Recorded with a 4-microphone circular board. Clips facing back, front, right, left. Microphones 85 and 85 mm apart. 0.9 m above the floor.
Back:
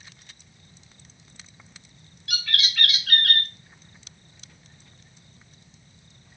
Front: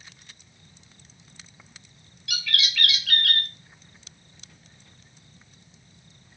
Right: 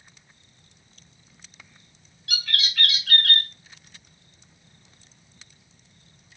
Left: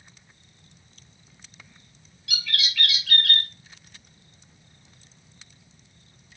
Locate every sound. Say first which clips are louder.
2.3 s a bird: even, right 1 dB; 140° right, 3.5 m